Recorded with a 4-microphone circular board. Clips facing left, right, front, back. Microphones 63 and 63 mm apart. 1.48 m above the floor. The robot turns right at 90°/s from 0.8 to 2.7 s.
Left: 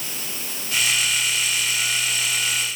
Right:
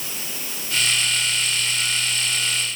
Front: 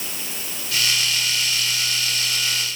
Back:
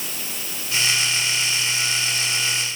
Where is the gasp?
No gasp in this recording.